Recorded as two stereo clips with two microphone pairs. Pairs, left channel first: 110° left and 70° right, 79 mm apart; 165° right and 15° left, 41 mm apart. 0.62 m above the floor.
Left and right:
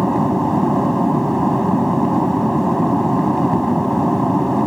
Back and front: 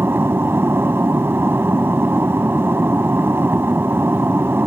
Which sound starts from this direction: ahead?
An aircraft, at 0.0 s.